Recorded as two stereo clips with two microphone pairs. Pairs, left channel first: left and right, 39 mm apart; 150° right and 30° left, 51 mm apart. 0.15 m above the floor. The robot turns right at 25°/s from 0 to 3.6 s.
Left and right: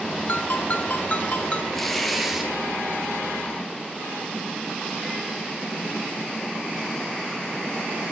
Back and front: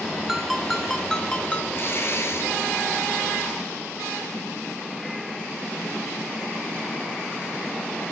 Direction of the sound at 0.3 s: 110° left.